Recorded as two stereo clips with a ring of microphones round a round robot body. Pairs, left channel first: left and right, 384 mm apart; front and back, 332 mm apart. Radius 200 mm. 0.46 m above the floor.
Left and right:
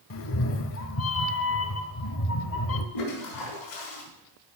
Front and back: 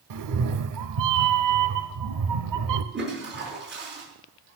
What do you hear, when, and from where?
0.1 s a cat meowing: 145° left, 0.9 m
2.9 s a toilet flushing: 125° left, 4.5 m